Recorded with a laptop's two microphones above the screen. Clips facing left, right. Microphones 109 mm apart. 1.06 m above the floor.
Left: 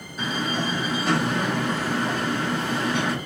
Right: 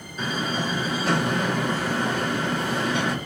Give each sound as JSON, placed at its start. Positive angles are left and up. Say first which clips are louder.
{"t": 0.2, "sound": "a door slam", "louder": "even", "side_deg": 0, "distance_m": 1.6}